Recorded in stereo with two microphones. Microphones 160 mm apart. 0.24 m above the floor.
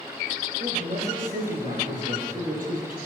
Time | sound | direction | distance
0.6 | a man speaking | 65° right (ahead or behind) | 8 m